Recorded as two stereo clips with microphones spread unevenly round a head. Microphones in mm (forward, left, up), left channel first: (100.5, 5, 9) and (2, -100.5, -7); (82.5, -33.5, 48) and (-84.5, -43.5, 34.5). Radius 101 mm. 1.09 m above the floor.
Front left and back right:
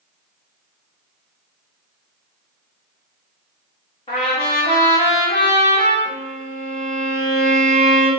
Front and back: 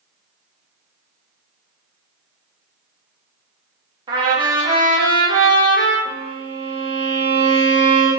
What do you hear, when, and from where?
4.1 s a trumpet: 115° left, 1.0 m
6.0 s a violin: 105° right, 2 m